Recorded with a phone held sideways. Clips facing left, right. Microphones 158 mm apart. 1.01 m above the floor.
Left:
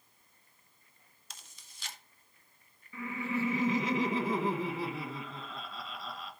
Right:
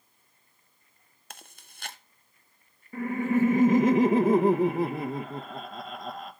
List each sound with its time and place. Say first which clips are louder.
1.3 s chewing: right 7 dB; 60° right (ahead or behind), 0.7 m
2.9 s laughter: right 10 dB; 50° right (ahead or behind), 1.0 m